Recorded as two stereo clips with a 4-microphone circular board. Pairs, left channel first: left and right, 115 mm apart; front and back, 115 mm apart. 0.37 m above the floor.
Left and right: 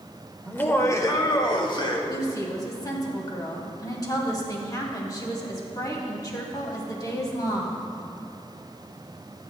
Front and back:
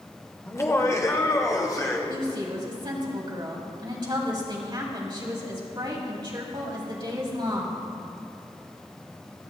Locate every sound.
0.5 s laughter: 25° left, 0.9 m; by 2.0 s 55° left, 2 m
2.1 s a woman speaking: 140° left, 2 m